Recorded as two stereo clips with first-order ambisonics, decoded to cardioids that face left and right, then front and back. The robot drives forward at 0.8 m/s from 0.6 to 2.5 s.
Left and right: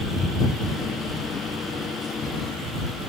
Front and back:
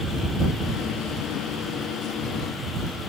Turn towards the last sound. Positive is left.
No sound to turn to.